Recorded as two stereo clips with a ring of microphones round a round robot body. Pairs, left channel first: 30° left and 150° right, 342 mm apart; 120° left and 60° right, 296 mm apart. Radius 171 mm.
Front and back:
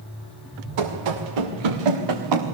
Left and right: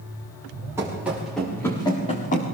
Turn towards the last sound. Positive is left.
turn(degrees=-175)